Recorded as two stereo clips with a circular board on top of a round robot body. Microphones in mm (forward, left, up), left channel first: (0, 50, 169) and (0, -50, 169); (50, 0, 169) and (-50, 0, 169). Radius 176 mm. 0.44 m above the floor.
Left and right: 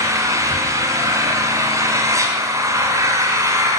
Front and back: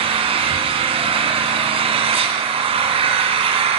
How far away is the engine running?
About 1.4 m.